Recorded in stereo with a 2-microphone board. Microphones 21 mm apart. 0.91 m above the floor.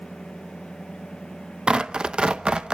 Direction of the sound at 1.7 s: 35° right (ahead or behind).